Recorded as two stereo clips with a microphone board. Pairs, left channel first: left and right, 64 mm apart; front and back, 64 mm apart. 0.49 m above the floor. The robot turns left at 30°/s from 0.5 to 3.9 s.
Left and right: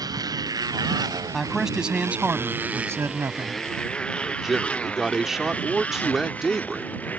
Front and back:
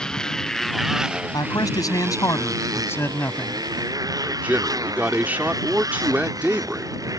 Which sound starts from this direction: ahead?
A man speaking, at 1.3 s.